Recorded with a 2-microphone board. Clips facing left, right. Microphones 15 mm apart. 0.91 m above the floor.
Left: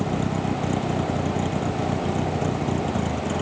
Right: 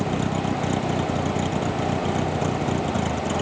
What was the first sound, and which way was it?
A vehicle, 20° right (ahead or behind).